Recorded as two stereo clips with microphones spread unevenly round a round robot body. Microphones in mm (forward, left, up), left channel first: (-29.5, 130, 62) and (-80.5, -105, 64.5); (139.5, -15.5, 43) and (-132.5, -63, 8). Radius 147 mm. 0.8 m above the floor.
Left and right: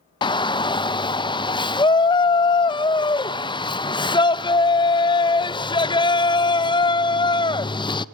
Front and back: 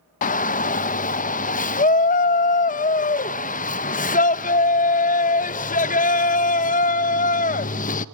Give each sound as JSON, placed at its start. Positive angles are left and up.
{"t": 0.2, "sound": "a shout", "azimuth_deg": 40, "distance_m": 0.5}